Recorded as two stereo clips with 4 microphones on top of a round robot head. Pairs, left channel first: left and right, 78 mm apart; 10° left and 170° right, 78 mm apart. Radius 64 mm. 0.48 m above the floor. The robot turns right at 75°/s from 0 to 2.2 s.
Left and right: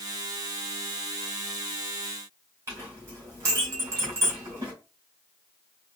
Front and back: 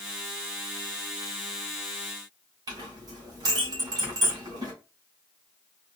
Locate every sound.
2.7 s a clink: 145° right, 1.8 m